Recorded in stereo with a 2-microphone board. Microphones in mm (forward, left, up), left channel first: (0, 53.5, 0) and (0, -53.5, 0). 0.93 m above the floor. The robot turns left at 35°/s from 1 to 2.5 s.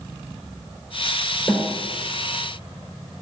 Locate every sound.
1.5 s a snare drum: 45° left (ahead or behind), 3.5 m; by 1.7 s 35° left (ahead or behind), 3.5 m